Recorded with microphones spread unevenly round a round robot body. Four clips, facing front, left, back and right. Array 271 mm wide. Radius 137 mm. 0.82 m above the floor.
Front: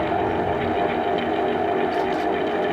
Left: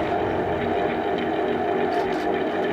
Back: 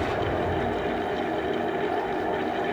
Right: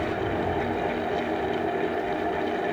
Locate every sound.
Only background noise.